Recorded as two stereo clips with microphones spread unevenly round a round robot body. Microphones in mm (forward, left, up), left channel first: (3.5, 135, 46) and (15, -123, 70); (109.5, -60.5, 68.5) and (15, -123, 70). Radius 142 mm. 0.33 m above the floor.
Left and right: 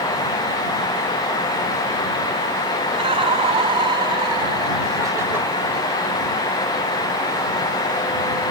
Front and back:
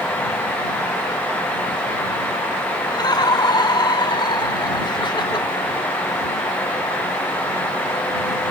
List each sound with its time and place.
2.9 s laughter: 20° right; by 5.5 s straight ahead